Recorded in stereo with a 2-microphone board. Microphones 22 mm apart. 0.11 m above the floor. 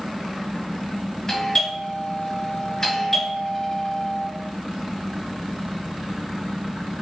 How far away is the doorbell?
About 1.8 m.